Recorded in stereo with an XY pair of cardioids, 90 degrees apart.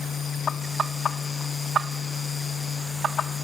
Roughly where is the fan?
Ahead left.